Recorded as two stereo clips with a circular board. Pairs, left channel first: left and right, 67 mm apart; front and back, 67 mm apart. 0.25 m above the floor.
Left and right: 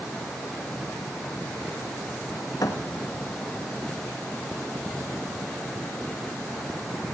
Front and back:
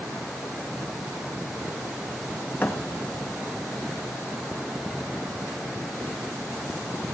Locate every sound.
2.6 s a thud: 60° left, 1.4 m